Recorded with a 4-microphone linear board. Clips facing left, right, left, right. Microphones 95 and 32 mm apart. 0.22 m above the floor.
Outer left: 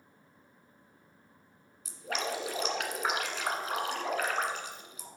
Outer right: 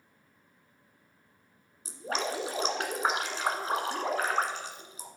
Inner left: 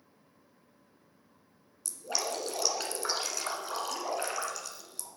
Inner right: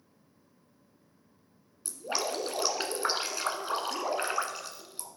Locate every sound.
1.9 s dripping: 35° right (ahead or behind), 1.3 m